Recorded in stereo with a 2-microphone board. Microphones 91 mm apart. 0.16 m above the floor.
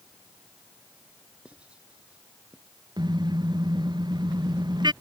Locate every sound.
1.4 s writing: 15° right (ahead or behind)
3.0 s a car horn: 50° right (ahead or behind)